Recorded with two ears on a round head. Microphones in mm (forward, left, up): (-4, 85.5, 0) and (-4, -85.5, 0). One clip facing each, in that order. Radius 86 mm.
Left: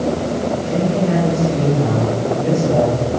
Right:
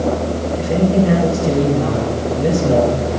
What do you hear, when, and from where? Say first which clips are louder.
0.6 s a man speaking: right 7 dB; 85° right, 4 m